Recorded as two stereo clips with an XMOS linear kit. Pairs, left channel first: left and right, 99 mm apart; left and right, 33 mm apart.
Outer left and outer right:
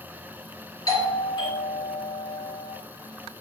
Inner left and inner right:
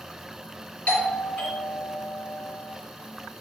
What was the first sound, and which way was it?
A doorbell, 40° left (ahead or behind).